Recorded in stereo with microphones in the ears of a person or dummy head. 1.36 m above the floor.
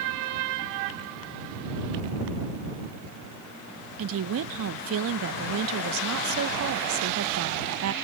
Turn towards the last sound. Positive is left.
turn(degrees=-75)  # may be behind; listen again after turning